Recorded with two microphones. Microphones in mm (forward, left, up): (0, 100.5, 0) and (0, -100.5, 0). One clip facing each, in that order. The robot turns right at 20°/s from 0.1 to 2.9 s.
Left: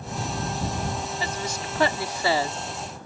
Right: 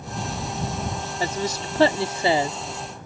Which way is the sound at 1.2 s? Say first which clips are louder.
Right 4 dB; 45° right (ahead or behind).